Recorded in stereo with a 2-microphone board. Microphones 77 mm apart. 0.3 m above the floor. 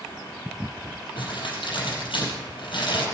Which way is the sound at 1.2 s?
80° left.